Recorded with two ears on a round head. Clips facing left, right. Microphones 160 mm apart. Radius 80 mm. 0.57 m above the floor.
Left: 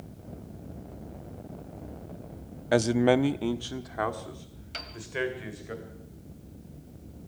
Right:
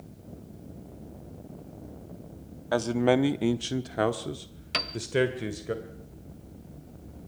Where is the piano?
65° right (ahead or behind), 1.2 m.